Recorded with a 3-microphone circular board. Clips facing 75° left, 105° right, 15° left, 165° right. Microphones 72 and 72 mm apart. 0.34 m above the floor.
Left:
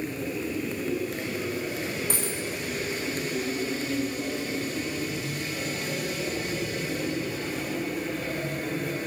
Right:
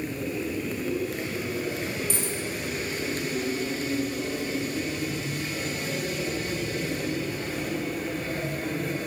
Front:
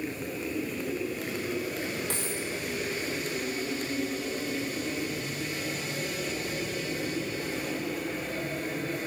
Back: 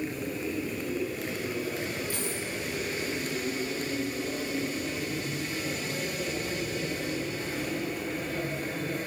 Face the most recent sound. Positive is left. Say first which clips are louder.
# even, even
turn(degrees=30)